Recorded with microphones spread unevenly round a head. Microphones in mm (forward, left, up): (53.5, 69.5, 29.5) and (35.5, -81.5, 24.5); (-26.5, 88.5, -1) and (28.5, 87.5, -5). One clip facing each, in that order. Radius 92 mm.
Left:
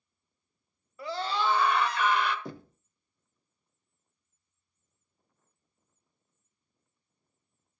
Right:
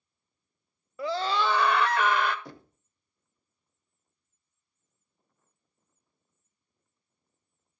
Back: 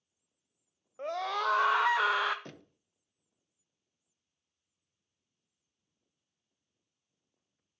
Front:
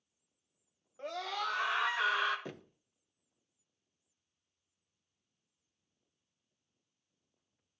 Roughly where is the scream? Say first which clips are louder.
Right 3 dB, back 5 dB; right.